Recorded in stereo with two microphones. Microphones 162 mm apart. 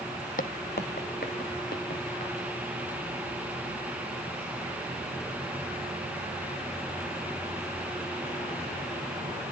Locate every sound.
0.4 s footsteps: 60° left (ahead or behind), 0.6 m; by 2.3 s 80° left, 3.5 m